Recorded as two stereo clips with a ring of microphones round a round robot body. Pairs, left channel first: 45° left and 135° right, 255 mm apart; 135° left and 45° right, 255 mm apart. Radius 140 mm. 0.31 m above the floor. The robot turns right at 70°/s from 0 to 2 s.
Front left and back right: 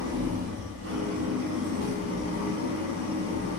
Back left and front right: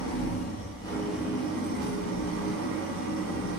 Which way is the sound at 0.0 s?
150° left.